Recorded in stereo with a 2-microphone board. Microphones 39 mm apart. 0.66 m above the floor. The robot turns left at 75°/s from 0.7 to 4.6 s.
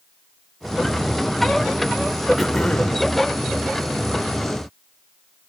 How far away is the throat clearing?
About 3 m.